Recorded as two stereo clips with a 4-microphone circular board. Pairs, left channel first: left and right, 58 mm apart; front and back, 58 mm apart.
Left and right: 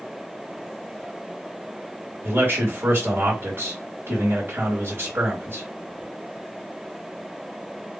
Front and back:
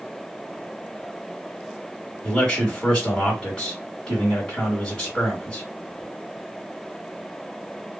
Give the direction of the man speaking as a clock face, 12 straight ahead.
3 o'clock.